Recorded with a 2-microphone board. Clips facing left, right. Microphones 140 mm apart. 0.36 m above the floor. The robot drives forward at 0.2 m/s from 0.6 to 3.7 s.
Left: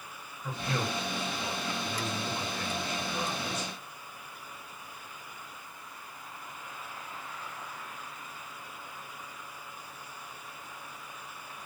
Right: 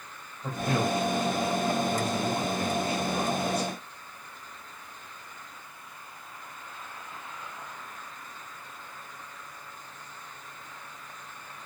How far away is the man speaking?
About 1.9 m.